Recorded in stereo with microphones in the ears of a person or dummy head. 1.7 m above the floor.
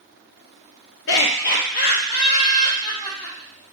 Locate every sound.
1.1 s laughter: 60° left (ahead or behind), 0.5 m; by 3.4 s 25° left (ahead or behind), 1.6 m